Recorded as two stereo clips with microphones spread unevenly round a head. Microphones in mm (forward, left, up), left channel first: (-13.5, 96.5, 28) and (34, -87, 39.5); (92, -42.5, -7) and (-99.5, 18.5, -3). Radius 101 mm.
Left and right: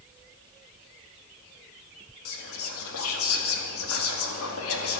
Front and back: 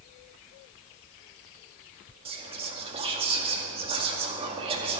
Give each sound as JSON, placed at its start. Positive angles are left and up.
{"t": 2.2, "sound": "whispering", "azimuth_deg": 95, "distance_m": 2.0}